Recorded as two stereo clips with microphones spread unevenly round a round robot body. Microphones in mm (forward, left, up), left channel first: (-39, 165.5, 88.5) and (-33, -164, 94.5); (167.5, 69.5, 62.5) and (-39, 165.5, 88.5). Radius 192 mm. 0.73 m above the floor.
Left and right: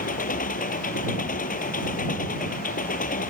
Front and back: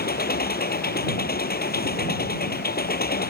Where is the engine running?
25° left.